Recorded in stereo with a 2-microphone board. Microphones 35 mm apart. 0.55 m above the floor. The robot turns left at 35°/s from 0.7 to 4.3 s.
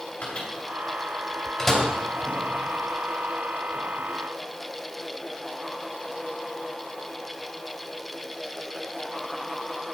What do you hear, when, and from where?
0.2 s a microwave: 45° left (ahead or behind), 2.5 m; by 1.8 s 10° left (ahead or behind), 2.5 m